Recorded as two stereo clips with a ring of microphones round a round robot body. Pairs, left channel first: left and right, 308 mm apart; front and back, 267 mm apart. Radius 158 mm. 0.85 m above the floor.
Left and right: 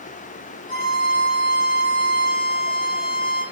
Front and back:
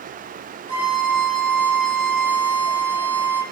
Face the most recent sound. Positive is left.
turn(degrees=10)